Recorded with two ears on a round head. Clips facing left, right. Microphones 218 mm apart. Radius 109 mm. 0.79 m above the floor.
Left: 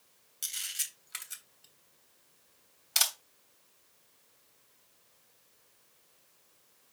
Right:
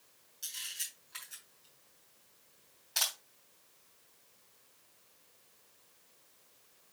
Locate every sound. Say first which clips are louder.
0.4 s a camera shutter: left 2 dB; 70° left (ahead or behind), 3 m